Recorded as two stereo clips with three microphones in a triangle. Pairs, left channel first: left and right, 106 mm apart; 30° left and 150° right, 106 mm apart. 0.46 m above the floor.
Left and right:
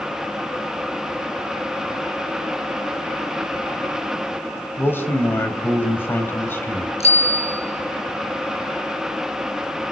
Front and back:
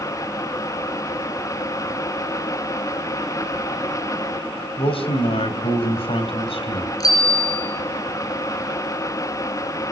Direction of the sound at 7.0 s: 85° left.